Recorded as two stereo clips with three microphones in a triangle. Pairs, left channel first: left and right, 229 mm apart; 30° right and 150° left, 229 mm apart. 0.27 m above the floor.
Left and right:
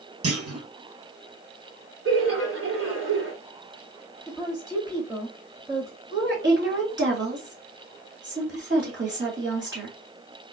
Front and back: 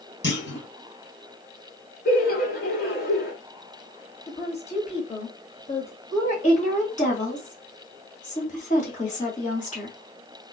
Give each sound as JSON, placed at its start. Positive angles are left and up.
{"t": 0.2, "sound": "a clunk", "azimuth_deg": -75, "distance_m": 1.7}
{"t": 2.0, "sound": "laughter", "azimuth_deg": -75, "distance_m": 2.5}
{"t": 4.3, "sound": "a woman speaking", "azimuth_deg": -35, "distance_m": 0.9}
{"t": 6.1, "sound": "a woman speaking", "azimuth_deg": -80, "distance_m": 2.0}